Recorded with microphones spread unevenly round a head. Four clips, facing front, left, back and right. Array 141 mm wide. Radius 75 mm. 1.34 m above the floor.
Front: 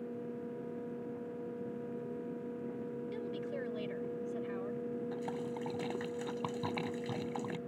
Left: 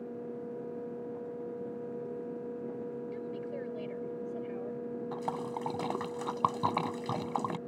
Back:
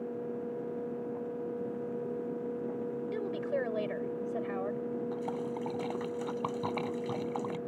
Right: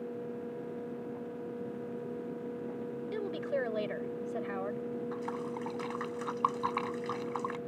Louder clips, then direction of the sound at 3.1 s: Right 4 dB, back 8 dB; 140° right.